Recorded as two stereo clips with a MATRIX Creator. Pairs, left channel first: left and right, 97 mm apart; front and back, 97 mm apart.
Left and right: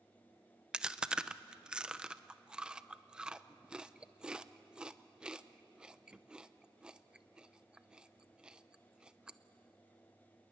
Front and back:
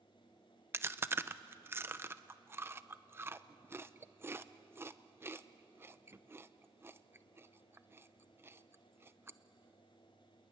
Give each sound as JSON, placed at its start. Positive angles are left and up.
{"t": 0.7, "sound": "chewing", "azimuth_deg": -160, "distance_m": 0.6}